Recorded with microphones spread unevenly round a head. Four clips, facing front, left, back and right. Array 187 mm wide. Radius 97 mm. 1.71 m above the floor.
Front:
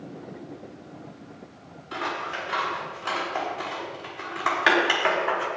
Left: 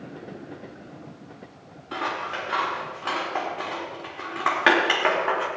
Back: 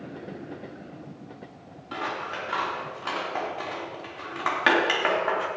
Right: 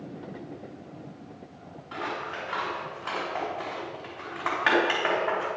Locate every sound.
1.9 s scissors: 105° left, 5 m